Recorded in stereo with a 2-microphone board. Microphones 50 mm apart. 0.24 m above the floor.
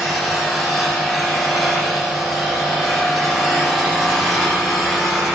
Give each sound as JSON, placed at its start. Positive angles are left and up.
{"t": 0.0, "sound": "an engine running", "side_deg": 0, "distance_m": 9.5}